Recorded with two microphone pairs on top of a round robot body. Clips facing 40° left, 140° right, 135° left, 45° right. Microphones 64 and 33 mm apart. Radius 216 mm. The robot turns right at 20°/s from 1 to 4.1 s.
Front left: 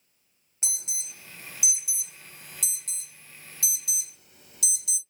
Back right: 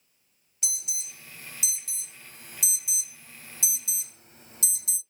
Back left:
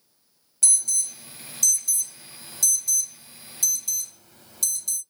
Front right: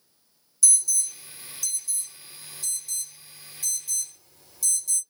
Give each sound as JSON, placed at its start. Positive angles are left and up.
{"t": 0.6, "sound": "an alarm", "azimuth_deg": 100, "distance_m": 1.7}